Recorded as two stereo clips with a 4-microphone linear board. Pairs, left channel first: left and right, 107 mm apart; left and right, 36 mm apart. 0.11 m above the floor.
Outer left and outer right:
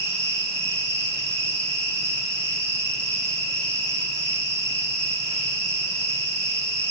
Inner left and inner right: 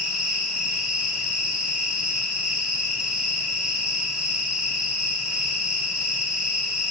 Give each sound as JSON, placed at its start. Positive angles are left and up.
{"t": 0.0, "sound": "an insect", "side_deg": -25, "distance_m": 4.5}